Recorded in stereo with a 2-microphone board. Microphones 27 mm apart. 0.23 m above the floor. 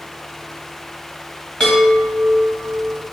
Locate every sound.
1.6 s a chime: 30° left (ahead or behind), 1.5 m